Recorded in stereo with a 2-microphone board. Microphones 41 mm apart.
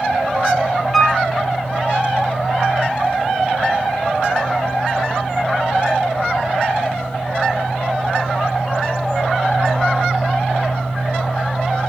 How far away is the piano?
About 1.8 m.